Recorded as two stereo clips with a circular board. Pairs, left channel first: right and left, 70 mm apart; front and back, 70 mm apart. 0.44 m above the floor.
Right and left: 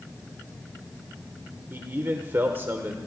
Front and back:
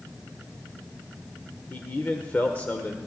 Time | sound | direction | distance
1.7 | a man speaking | 55° left | 1.0 m